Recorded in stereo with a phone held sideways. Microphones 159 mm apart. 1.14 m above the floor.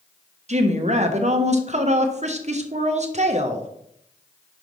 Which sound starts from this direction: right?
A woman speaking, at 0.5 s.